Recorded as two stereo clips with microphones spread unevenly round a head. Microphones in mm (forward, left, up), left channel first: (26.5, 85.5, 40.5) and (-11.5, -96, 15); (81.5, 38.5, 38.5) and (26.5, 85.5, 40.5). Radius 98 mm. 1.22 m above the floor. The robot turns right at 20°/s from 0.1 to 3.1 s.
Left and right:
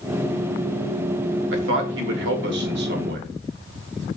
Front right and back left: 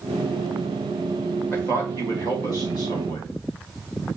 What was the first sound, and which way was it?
A man speaking, 110° right.